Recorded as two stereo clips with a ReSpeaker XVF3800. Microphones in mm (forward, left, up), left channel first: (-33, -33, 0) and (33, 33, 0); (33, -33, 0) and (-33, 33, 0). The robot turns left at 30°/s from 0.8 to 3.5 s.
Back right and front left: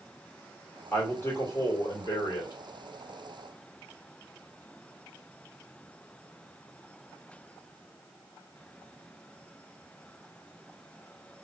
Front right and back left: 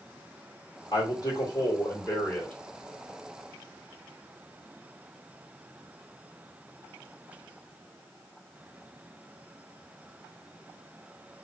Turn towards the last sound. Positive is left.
turn(degrees=-150)